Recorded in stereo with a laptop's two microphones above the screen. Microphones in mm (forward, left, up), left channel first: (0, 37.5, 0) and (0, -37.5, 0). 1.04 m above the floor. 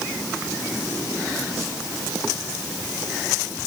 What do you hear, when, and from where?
Only background noise.